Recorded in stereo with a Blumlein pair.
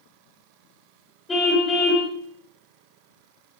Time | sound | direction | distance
1.3 | a car horn | 15° left | 5 m